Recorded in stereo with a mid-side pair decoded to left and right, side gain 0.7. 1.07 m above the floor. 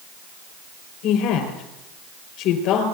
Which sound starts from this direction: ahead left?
A woman speaking, at 1.0 s.